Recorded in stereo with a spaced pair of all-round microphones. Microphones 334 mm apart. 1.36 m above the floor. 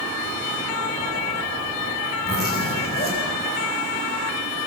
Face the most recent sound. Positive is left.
turn(degrees=30)  # may be behind; listen again after turning